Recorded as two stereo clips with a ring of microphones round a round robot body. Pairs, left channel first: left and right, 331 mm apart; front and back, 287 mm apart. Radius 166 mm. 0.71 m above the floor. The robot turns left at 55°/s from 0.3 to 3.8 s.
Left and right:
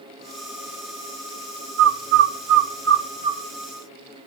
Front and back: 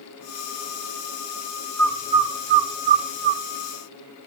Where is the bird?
85° right, 1.5 m; by 3.4 s 175° right, 1.5 m.